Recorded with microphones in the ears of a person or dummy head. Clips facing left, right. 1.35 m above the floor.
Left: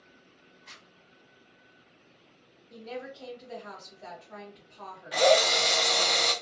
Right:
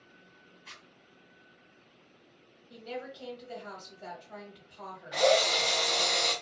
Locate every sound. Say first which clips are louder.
0.7 s a zipper: even; 50° right (ahead or behind), 1.4 m
2.7 s a woman speaking: left 1 dB; 25° right (ahead or behind), 1.1 m
5.1 s a drill: left 3 dB; 45° left (ahead or behind), 0.5 m